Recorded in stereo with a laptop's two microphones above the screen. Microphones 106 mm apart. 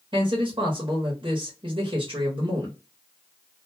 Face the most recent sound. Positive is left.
turn(degrees=-50)  # may be behind; listen again after turning